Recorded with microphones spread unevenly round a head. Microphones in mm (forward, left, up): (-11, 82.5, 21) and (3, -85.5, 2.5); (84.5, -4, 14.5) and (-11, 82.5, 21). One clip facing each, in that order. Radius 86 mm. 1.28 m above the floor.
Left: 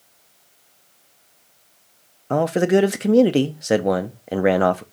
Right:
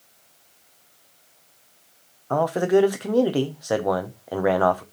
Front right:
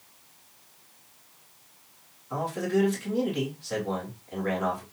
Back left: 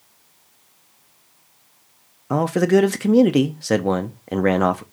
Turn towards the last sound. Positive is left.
turn(degrees=160)